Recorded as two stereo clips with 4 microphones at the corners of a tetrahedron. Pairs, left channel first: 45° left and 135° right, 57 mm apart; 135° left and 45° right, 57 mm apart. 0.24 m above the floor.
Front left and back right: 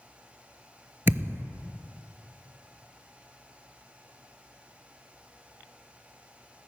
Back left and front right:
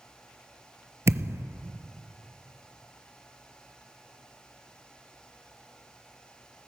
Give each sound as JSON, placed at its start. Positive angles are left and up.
{"t": 1.1, "sound": "a thud", "azimuth_deg": -85, "distance_m": 0.6}